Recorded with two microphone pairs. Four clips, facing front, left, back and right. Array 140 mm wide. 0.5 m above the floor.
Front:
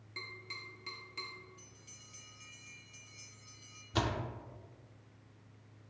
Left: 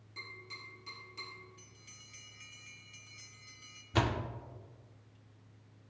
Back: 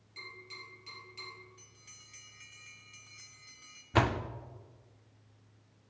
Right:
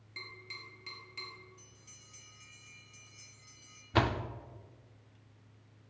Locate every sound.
0.2 s tapping: 15° right, 5 m
1.6 s a bell: 170° left, 2 m
3.9 s a door slam: 145° right, 0.5 m